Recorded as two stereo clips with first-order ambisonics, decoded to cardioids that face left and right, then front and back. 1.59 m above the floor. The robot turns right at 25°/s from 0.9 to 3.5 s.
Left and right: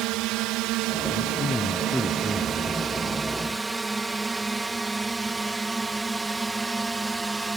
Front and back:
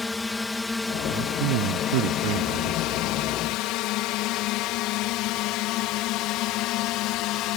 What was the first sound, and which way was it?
A drone, 75° right.